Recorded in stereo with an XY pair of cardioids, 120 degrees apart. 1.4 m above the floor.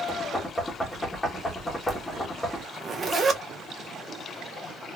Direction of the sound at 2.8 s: 30° right.